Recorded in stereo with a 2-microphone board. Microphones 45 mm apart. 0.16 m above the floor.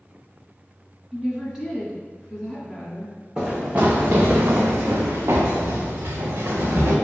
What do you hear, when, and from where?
1.1 s a woman speaking: 10° right (ahead or behind), 1.4 m
3.4 s running footsteps: 20° right (ahead or behind), 0.9 m; by 7.0 s 65° right (ahead or behind), 1.6 m